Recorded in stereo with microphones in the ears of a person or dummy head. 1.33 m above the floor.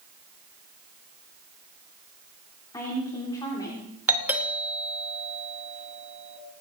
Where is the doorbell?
10° right (ahead or behind), 3 m.